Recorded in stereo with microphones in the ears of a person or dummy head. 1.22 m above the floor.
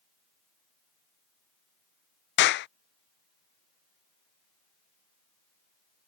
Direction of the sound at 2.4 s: 55° left (ahead or behind).